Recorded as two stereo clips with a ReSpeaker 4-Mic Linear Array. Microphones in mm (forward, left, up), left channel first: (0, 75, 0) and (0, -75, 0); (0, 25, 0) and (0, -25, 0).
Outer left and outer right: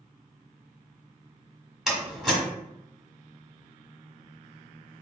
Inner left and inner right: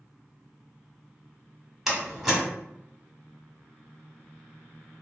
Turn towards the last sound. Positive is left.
turn(degrees=-5)  # may be behind; listen again after turning